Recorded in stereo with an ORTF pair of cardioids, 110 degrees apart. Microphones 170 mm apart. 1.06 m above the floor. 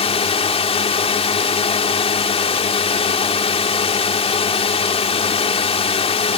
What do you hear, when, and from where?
0.0 s a drone: 35° left